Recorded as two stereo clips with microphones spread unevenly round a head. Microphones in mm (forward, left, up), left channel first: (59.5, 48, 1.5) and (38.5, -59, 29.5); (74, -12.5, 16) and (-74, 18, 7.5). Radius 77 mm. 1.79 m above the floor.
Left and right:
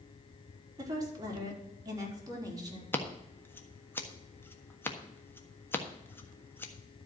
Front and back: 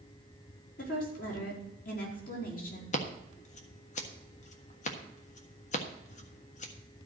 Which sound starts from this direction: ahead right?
A woman speaking, at 0.8 s.